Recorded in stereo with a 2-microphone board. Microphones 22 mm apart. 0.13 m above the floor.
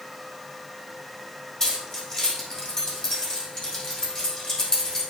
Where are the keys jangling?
35° left (ahead or behind), 4.5 m.